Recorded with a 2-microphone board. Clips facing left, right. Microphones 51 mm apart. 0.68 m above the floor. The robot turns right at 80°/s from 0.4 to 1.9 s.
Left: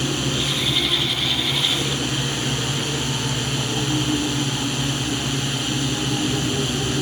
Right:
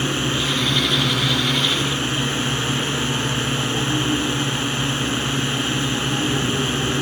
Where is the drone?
150° right; by 7.0 s 30° right.